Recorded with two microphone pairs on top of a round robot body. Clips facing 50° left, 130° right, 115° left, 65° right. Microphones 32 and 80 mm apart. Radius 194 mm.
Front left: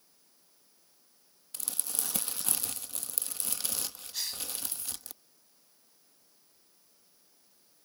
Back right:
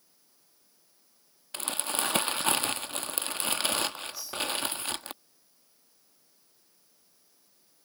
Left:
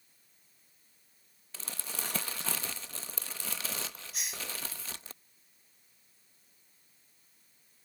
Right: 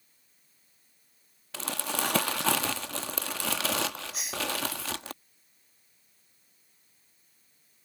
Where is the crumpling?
90° right.